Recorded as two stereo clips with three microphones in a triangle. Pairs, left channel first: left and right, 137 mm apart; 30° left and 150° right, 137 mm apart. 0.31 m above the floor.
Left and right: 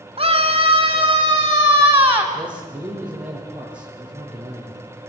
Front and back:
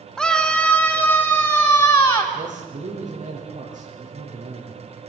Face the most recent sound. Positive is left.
turn(degrees=-170)